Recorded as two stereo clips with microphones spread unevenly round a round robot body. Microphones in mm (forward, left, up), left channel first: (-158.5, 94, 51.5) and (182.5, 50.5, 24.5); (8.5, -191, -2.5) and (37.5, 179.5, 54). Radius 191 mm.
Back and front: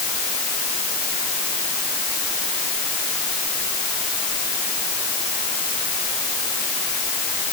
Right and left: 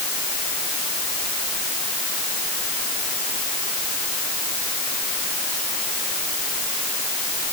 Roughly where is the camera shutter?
No camera shutter in this recording.